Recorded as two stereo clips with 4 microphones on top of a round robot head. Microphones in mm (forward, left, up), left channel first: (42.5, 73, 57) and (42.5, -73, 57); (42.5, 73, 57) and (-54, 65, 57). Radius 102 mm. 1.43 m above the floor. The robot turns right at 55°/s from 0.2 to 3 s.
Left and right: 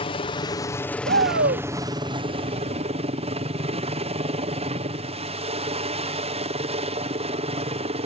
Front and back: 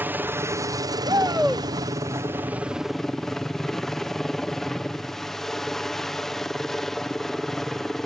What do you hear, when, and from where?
0.0 s a helicopter: 125° left; by 8.1 s 80° right
1.1 s a shout: 115° right; by 1.7 s 80° right